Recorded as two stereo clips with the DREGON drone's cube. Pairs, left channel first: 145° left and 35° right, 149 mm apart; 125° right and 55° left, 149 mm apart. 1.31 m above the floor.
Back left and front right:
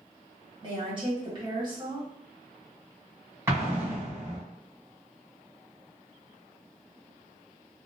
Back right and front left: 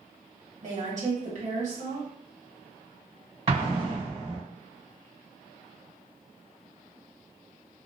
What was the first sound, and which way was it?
A woman speaking, 20° left.